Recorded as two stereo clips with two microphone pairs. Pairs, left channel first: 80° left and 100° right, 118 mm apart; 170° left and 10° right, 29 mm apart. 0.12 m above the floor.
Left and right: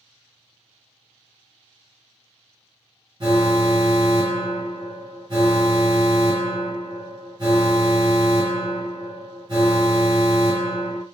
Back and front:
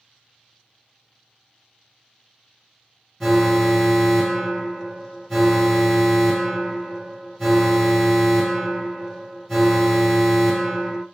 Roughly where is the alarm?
Right.